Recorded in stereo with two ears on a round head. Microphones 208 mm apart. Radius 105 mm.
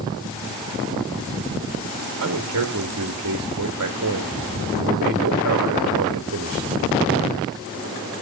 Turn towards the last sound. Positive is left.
turn(degrees=-60)  # may be behind; listen again after turning